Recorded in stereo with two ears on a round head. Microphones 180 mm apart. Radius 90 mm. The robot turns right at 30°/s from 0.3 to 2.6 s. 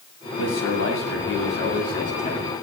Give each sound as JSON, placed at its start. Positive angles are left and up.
{"t": 0.4, "sound": "a man speaking", "azimuth_deg": 85, "distance_m": 9.0}